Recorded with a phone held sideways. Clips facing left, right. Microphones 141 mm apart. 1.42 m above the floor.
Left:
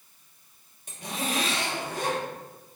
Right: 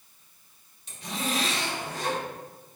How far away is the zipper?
About 1.3 m.